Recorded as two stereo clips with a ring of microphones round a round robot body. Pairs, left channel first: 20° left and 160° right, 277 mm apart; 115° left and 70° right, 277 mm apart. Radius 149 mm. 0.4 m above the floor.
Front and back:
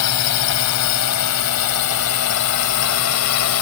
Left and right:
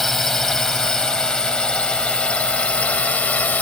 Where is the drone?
25° left; by 3.6 s 30° left.